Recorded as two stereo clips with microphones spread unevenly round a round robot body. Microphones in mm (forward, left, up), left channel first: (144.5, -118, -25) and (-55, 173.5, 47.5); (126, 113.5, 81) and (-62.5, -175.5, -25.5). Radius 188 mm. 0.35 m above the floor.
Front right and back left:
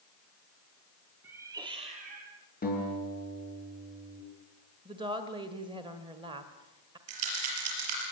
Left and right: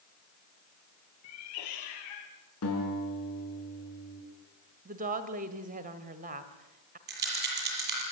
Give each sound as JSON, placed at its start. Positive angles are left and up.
{"t": 1.2, "sound": "a cat meowing", "azimuth_deg": 40, "distance_m": 4.0}
{"t": 2.6, "sound": "a guitar", "azimuth_deg": 5, "distance_m": 6.5}
{"t": 4.8, "sound": "a woman speaking", "azimuth_deg": -150, "distance_m": 1.5}
{"t": 7.1, "sound": "a rattle", "azimuth_deg": 175, "distance_m": 6.0}